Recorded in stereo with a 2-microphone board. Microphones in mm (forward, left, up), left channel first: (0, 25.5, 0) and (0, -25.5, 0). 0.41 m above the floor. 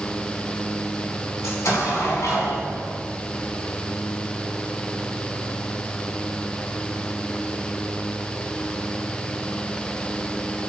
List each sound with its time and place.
1.4 s an explosion: 80° left, 1.8 m